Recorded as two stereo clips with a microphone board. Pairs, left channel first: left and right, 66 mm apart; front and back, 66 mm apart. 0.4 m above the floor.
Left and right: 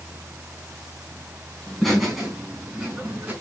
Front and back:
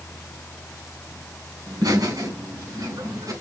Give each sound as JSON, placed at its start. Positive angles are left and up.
{"t": 1.7, "sound": "laughter", "azimuth_deg": 175, "distance_m": 4.5}